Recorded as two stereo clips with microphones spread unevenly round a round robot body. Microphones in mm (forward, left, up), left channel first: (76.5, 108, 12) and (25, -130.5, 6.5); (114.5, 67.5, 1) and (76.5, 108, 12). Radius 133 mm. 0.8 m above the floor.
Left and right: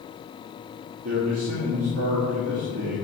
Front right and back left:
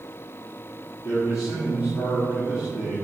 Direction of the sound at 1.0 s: 95° right.